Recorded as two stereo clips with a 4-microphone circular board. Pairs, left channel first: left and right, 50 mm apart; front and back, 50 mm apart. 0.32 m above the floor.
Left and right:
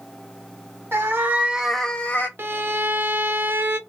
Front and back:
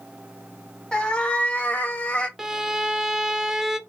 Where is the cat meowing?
70° right, 1.0 m; by 2.3 s 55° left, 0.8 m.